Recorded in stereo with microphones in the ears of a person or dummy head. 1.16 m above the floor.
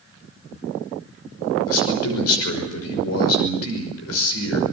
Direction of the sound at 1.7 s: 70° left (ahead or behind).